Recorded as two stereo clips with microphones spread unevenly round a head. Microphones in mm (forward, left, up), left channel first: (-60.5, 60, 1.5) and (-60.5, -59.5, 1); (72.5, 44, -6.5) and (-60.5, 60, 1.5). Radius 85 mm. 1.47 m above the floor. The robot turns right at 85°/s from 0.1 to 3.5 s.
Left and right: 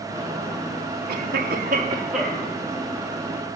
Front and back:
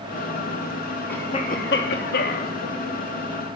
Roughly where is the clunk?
I don't hear a clunk.